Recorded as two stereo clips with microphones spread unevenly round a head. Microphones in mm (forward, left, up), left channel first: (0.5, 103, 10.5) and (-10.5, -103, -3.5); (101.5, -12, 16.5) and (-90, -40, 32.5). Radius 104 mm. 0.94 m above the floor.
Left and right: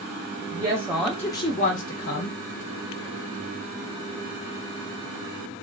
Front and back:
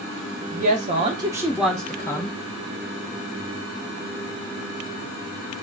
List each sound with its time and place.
0.5 s a woman speaking: 145° right, 0.7 m; by 2.4 s 70° left, 0.9 m